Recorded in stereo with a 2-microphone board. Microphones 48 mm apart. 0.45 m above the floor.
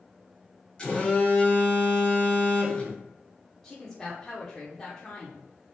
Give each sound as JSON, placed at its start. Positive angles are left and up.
{"t": 0.8, "sound": "a phone buzzing", "side_deg": 20, "distance_m": 1.2}
{"t": 3.6, "sound": "a woman speaking", "side_deg": 10, "distance_m": 0.7}